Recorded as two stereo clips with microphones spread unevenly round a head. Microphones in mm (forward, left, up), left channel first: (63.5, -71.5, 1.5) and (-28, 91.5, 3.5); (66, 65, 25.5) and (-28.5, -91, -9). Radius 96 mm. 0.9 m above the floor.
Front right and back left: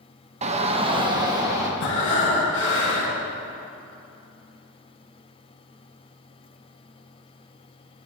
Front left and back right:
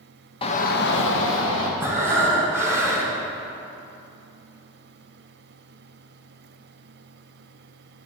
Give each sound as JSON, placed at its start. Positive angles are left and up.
{"t": 0.4, "sound": "a shout", "azimuth_deg": 120, "distance_m": 1.0}
{"t": 1.8, "sound": "breathing", "azimuth_deg": -40, "distance_m": 3.0}